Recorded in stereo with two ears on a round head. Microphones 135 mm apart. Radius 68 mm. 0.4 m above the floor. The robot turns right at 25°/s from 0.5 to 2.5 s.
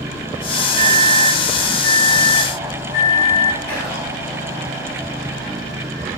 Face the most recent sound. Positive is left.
turn(degrees=15)  # may be behind; listen again after turning